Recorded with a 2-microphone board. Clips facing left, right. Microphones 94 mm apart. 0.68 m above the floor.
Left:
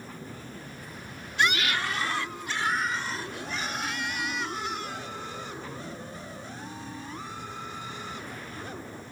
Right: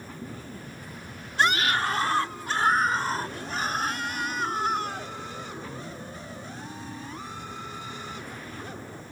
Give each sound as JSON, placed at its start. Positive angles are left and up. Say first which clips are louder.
{"t": 1.4, "sound": "a scream", "louder": "right 3 dB", "side_deg": -35}